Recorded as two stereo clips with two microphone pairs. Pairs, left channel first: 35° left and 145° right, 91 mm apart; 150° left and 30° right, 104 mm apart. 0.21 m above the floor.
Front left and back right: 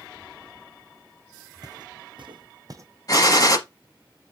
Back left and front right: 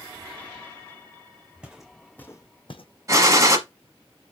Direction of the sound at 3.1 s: 10° left.